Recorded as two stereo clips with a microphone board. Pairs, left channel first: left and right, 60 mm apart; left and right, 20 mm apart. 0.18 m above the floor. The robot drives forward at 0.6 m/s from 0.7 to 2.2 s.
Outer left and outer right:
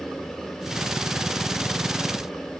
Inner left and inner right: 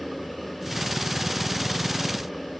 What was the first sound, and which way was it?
Only background noise.